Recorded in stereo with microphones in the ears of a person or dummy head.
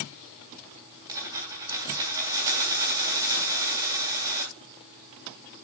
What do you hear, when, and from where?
1.1 s a dropped coin: 20° right (ahead or behind), 3.5 m